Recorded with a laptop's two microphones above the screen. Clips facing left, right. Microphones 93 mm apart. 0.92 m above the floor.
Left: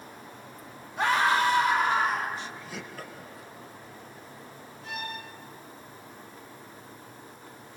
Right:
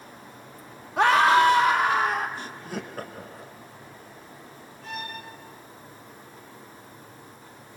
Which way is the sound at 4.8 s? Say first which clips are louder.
Right 1 dB; 70° right (ahead or behind).